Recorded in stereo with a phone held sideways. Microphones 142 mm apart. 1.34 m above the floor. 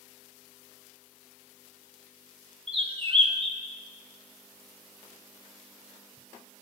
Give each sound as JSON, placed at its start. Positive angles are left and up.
{"t": 2.7, "sound": "a bird", "side_deg": -40, "distance_m": 2.5}